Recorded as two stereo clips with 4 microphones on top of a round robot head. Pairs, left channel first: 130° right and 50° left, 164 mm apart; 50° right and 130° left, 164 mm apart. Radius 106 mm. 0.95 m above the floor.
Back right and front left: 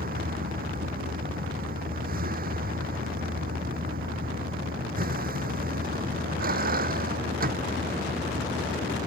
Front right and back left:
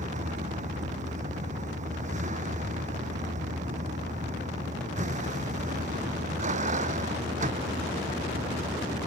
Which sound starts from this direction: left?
A vehicle, at 0.0 s.